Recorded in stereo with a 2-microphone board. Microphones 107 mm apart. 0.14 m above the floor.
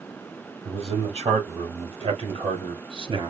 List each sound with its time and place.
0.7 s a man speaking: 70° right (ahead or behind), 3.5 m; by 3.3 s 55° right (ahead or behind), 1.7 m